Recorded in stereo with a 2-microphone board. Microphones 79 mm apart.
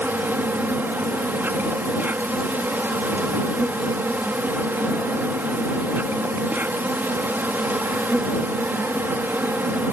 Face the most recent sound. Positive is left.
turn(degrees=-25)  # may be behind; listen again after turning